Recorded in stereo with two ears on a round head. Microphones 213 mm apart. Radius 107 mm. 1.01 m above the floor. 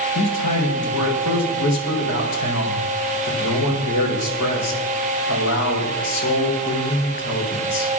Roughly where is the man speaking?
Left.